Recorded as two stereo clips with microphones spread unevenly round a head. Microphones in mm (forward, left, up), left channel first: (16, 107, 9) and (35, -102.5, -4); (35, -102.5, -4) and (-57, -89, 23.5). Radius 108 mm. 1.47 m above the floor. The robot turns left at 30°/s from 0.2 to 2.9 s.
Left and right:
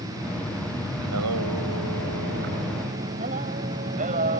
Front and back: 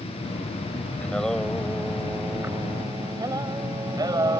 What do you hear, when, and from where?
1.0 s singing: 85° right; by 4.4 s 145° right